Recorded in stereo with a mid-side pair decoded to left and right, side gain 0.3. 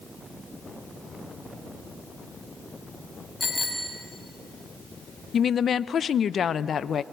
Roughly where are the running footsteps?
I don't hear running footsteps.